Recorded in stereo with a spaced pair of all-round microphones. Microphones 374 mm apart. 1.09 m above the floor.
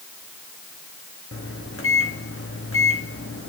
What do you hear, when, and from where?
1.3 s a microwave: 35° left (ahead or behind), 1.4 m